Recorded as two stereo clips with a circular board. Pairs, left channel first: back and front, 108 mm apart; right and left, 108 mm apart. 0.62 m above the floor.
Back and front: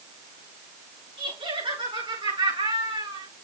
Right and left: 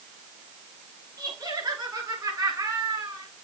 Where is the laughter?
30° left, 7.5 m; by 3.3 s 25° left, 6.5 m.